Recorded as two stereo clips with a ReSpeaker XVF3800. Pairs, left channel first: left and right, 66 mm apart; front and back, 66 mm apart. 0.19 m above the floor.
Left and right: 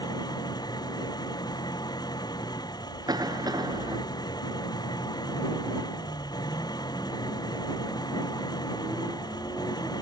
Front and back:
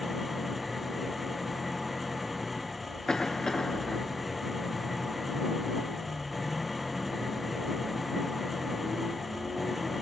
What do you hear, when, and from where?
0.0 s an engine running: 90° left
3.1 s a cough: 80° right